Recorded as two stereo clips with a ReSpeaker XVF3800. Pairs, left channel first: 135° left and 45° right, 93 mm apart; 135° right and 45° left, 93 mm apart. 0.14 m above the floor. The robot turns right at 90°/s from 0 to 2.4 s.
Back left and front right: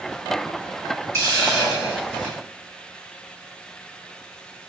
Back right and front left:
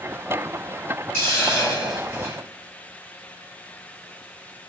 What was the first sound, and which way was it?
A hiss, straight behind.